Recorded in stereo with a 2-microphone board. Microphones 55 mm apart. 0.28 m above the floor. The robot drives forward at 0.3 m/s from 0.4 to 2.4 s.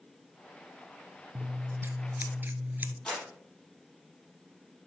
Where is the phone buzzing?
I don't hear a phone buzzing.